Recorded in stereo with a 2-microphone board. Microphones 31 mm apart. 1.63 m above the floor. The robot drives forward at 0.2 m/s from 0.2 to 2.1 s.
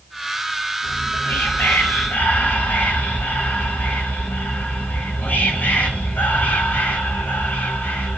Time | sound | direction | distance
0.8 | whispering | 70° left (ahead or behind) | 0.7 m